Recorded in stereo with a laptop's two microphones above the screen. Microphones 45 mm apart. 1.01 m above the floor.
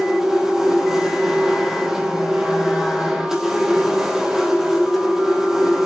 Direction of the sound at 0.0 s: 15° right (ahead or behind).